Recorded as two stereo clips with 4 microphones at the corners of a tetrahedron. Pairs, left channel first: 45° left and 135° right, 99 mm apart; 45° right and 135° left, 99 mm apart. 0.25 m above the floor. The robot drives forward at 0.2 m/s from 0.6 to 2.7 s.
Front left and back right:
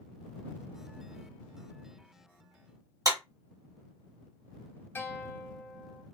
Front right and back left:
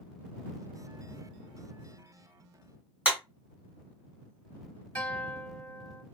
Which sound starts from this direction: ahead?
A guitar, at 5.0 s.